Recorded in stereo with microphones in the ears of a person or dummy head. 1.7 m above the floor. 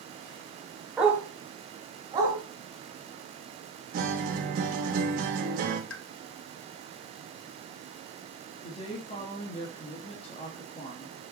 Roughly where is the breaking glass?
I don't hear breaking glass.